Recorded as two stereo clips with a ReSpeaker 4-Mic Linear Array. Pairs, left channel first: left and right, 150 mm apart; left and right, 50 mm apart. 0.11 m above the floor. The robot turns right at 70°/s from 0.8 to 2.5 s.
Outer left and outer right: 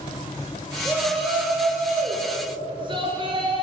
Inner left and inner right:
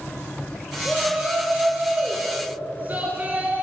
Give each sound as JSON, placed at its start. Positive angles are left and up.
{"t": 0.8, "sound": "a shout", "azimuth_deg": 150, "distance_m": 1.9}